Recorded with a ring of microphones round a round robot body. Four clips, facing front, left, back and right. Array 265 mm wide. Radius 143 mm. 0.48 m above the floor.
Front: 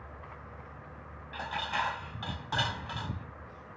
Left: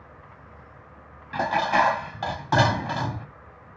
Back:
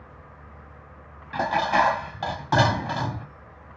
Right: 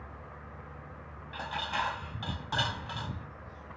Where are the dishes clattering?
135° left.